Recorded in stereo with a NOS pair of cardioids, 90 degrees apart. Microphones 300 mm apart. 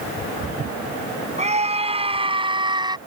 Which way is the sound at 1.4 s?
20° right.